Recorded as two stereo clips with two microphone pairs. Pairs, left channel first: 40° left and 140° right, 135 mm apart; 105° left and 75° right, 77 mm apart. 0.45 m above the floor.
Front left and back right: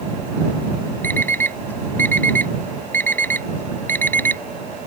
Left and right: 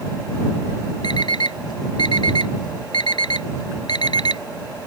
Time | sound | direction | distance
1.0 | an alarm clock | 115° left | ?